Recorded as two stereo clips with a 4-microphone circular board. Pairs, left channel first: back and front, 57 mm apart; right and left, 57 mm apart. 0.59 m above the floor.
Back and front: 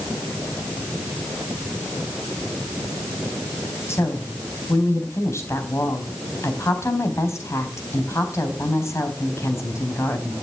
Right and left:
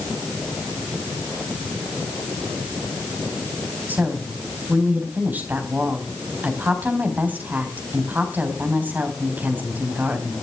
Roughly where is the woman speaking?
Behind left.